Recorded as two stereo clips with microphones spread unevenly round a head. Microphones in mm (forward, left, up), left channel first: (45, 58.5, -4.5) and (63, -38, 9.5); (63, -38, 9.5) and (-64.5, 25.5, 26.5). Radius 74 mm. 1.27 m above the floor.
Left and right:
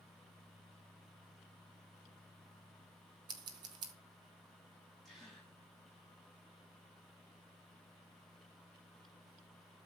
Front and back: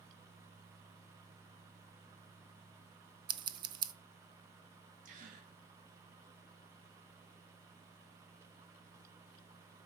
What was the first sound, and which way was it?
Scissors, 145° right.